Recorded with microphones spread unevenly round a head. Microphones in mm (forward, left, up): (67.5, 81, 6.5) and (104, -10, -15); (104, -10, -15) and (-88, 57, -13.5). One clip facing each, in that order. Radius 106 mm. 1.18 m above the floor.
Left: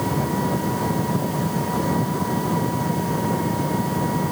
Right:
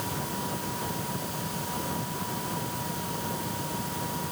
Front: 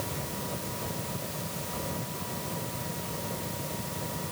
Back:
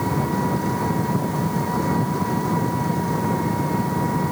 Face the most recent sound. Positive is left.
turn(degrees=155)